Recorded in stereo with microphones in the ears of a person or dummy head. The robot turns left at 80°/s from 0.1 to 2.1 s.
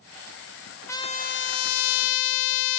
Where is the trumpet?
165° left, 0.6 m; by 2.8 s 70° left, 0.6 m.